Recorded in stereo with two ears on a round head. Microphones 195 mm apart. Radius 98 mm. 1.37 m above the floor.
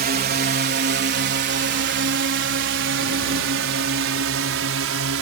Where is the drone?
45° right (ahead or behind); by 5.2 s 65° right (ahead or behind).